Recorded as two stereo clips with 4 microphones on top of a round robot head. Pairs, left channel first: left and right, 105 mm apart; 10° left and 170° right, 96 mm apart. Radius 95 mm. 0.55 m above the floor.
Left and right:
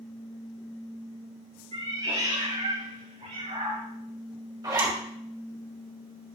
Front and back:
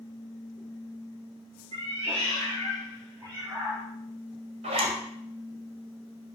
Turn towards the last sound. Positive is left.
turn(degrees=-150)